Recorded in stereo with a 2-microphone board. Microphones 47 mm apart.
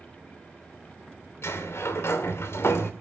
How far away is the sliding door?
About 2.5 m.